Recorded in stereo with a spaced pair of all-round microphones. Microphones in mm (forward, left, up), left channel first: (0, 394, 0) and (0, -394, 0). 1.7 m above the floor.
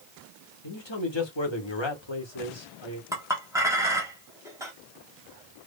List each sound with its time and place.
0.6 s a man speaking: 35° left (ahead or behind), 1.2 m
3.1 s a clink: 5° right (ahead or behind), 1.2 m